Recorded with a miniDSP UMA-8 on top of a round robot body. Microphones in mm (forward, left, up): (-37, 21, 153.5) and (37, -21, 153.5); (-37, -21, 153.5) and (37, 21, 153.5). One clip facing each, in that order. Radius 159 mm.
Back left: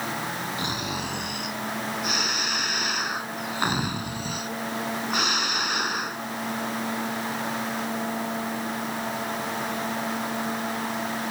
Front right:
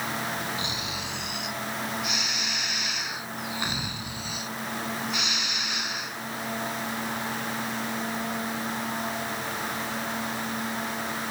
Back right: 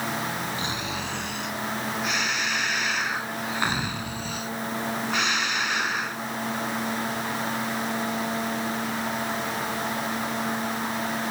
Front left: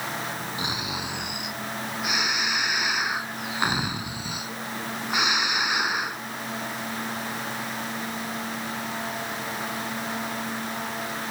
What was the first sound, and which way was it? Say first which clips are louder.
Snoring: back left 4 dB, back right 1 dB; 110° left.